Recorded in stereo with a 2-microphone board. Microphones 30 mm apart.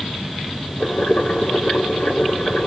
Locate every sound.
0.8 s boiling: 65° left (ahead or behind), 3 m